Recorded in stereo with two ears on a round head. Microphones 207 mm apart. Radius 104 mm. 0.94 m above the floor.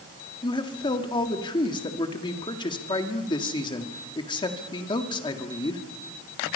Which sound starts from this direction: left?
A man speaking, at 0.4 s.